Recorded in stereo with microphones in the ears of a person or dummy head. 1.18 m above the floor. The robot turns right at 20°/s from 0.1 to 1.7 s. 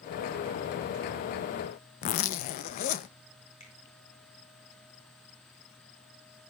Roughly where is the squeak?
No squeak in this recording.